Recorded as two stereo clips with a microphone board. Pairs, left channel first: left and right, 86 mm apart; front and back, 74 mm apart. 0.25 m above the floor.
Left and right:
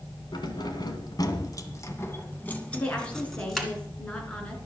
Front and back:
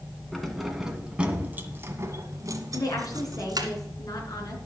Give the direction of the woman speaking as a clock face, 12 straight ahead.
11 o'clock.